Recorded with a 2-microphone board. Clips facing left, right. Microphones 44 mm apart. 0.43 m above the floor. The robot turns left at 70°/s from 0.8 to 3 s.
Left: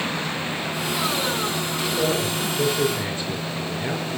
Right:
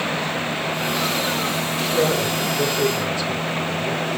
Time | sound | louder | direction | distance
1.8 | a man speaking | right 3 dB | 130° right | 5.5 m